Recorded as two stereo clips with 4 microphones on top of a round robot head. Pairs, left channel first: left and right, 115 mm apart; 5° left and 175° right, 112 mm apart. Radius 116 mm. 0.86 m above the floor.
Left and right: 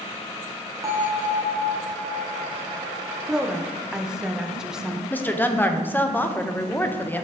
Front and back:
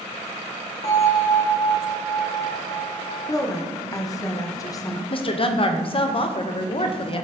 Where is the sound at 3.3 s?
10° right, 0.8 m.